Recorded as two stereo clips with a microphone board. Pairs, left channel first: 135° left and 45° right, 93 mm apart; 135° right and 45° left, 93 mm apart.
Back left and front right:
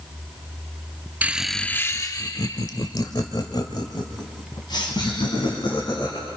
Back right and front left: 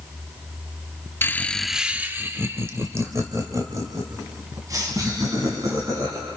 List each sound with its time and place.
1.2 s laughter: 95° right, 0.7 m; by 6.3 s 100° left, 4.5 m